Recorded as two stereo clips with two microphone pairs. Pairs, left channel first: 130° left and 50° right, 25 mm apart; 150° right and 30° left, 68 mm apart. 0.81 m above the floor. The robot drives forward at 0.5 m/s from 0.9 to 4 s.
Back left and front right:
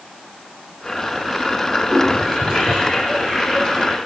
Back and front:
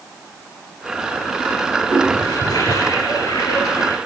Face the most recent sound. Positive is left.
turn(degrees=180)